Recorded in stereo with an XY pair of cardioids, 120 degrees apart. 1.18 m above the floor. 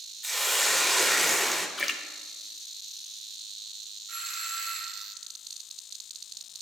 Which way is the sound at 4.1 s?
70° right.